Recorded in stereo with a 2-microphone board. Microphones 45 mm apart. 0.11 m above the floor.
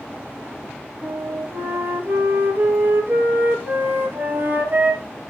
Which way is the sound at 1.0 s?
50° right (ahead or behind).